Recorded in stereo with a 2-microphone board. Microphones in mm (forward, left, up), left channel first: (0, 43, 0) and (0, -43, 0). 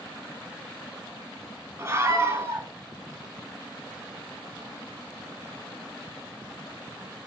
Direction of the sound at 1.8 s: 30° right (ahead or behind).